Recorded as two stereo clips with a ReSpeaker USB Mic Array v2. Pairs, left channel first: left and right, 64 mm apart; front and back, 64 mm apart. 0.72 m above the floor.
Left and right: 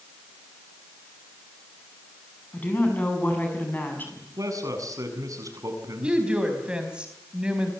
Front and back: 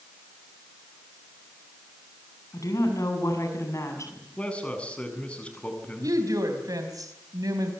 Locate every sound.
2.5 s a woman speaking: 30° left, 7 m; by 4.3 s 35° left, 6.5 m
4.4 s a man speaking: 70° right, 7.5 m
6.0 s a woman speaking: 165° right, 4 m